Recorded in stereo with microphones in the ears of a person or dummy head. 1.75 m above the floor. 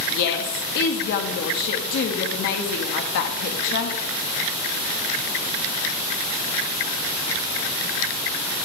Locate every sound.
0.1 s a woman speaking: 55° left (ahead or behind), 0.6 m